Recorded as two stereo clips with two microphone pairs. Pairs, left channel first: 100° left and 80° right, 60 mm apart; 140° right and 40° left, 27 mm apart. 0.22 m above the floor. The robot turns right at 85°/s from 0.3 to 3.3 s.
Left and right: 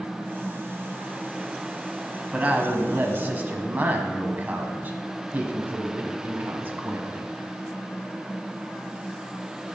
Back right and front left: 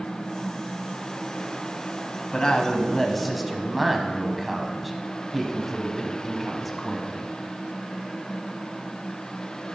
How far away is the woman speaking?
About 1.3 m.